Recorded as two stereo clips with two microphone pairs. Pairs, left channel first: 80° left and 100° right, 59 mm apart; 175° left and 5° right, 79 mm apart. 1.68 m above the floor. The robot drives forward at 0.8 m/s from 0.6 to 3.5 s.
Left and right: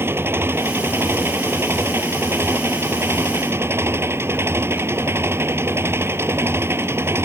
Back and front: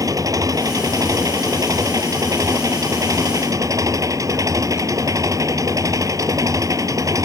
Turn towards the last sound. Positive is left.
turn(degrees=-50)